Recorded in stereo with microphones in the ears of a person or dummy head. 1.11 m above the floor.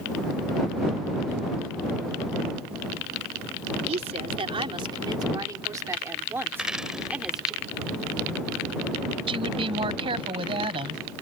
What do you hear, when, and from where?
3.9 s a woman speaking: 35° right (ahead or behind); by 7.5 s 5° right (ahead or behind)
6.5 s a dropped coin: 5° right (ahead or behind)
9.3 s a woman speaking: 30° right (ahead or behind)